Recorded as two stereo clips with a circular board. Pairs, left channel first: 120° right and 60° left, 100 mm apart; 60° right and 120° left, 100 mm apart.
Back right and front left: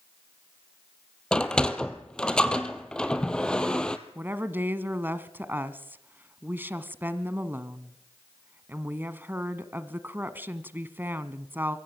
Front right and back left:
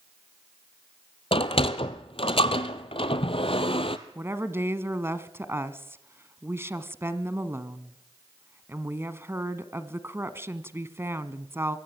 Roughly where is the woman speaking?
Left.